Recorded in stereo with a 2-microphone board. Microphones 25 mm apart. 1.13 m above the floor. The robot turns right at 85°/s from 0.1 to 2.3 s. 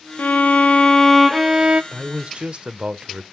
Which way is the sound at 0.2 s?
90° left.